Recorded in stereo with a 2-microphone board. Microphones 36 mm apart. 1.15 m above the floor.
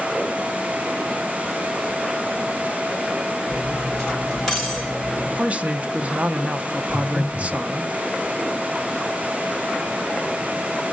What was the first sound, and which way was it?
Cutlery clinking, 5° left (ahead or behind).